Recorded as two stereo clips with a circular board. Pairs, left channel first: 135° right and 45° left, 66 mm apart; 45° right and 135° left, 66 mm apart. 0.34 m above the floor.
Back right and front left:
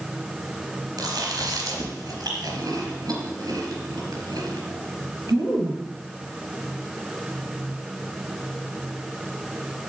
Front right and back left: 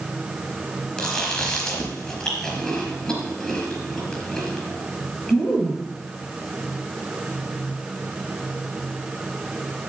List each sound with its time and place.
1.0 s chewing: 30° left, 4 m